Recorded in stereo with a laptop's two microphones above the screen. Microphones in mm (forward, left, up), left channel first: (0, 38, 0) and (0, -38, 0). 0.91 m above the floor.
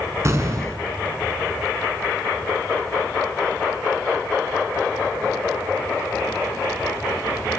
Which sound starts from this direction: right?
An explosion, at 0.2 s.